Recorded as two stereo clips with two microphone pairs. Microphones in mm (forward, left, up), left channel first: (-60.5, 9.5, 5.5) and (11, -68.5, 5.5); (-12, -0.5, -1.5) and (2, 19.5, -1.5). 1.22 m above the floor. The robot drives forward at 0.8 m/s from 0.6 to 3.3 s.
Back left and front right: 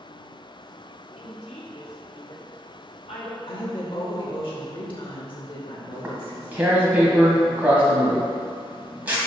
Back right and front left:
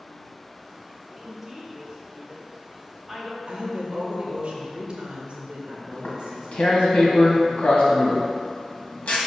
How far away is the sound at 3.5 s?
About 2 m.